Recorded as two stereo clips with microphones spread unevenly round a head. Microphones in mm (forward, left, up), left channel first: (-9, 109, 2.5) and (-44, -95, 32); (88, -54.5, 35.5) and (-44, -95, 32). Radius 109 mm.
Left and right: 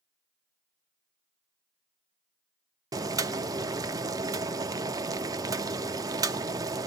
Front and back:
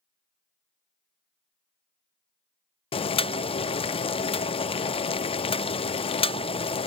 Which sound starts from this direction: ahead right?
Boiling, at 2.9 s.